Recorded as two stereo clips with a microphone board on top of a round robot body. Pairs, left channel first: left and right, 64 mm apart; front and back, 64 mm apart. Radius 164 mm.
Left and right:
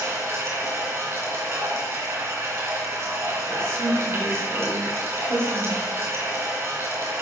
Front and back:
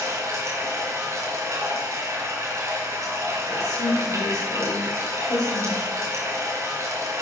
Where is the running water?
140° right, 2.5 m.